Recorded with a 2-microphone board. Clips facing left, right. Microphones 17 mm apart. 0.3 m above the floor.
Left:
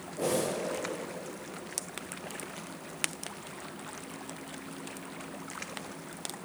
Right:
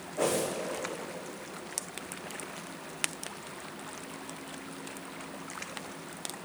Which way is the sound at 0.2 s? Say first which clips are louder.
Right 1 dB; 80° right.